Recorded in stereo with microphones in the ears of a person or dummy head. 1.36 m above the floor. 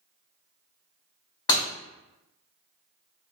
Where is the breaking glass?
20° left (ahead or behind), 1.2 m.